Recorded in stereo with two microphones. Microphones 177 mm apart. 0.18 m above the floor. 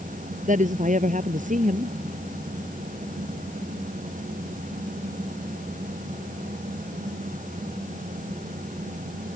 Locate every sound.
0.5 s a woman speaking: 45° right (ahead or behind)